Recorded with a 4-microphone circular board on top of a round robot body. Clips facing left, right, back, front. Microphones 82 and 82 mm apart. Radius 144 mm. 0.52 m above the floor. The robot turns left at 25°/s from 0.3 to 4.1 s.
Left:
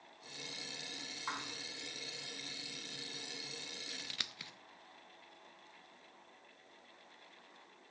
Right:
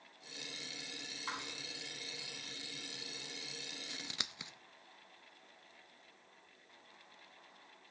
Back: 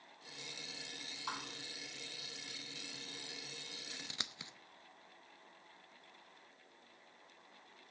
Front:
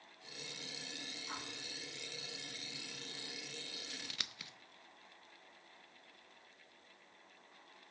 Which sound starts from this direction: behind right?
Scissors, at 3.9 s.